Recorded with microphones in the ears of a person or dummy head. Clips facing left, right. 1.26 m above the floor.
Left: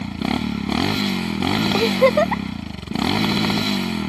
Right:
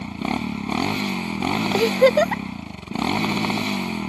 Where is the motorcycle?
15° left (ahead or behind).